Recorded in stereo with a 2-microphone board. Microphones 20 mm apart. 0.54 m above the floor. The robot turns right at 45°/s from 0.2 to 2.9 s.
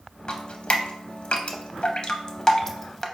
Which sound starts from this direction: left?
Dripping, at 0.3 s.